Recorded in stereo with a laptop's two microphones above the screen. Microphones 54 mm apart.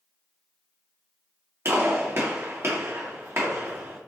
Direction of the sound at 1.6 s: 50° right (ahead or behind).